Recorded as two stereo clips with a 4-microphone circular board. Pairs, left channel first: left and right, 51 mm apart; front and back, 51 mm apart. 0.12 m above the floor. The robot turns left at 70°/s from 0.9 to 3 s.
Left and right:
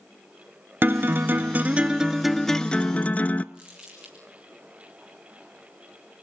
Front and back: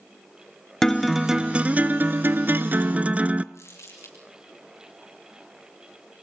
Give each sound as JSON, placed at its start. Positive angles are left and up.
{"t": 0.8, "sound": "a guitar", "azimuth_deg": -80, "distance_m": 0.6}
{"t": 3.5, "sound": "crumpling", "azimuth_deg": -20, "distance_m": 5.5}